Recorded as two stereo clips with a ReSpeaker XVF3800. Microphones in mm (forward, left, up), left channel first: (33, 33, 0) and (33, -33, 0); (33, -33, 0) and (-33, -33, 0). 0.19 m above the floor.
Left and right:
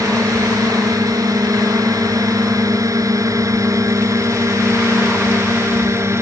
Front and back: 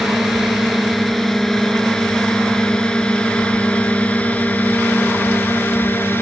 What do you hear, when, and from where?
0.0 s a drone: 90° right; by 6.2 s 50° right